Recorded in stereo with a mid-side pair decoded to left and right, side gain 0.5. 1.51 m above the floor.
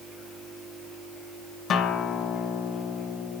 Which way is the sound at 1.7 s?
60° left.